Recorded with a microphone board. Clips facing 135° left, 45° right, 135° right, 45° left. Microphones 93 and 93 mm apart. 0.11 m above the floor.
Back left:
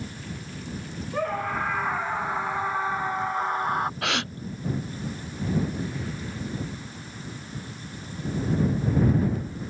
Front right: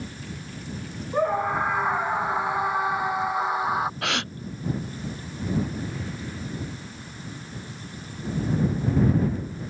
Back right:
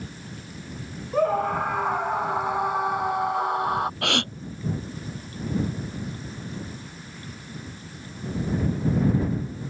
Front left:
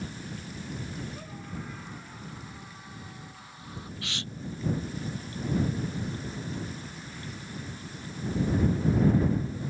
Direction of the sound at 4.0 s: 135° right.